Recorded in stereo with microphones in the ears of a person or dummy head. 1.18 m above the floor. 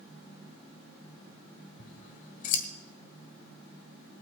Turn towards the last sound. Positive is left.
turn(degrees=45)  # may be behind; listen again after turning